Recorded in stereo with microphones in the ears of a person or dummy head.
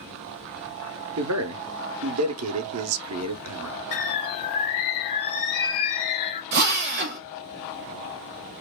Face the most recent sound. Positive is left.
turn(degrees=-45)  # may be behind; listen again after turning